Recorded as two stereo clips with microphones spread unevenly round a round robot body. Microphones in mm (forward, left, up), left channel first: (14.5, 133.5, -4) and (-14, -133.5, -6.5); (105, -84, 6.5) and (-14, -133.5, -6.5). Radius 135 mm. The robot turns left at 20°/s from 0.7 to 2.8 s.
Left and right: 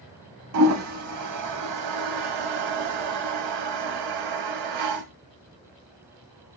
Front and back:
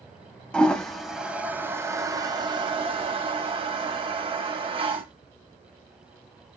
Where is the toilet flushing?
60° right, 0.6 m; by 5.0 s 105° right, 0.6 m.